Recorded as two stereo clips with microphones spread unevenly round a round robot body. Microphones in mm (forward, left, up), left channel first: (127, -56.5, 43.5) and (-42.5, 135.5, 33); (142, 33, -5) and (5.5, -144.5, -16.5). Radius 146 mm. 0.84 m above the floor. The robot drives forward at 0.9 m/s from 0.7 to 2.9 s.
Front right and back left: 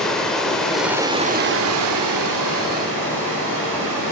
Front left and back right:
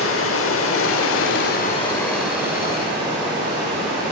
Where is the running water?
40° left, 1.0 m; by 4.1 s 155° left, 1.4 m.